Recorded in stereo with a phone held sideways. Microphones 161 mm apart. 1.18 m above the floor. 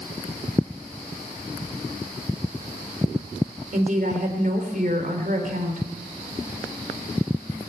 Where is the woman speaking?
50° right (ahead or behind), 3.5 m.